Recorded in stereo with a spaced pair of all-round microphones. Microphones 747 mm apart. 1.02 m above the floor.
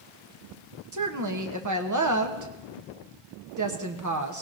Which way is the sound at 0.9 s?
25° right (ahead or behind).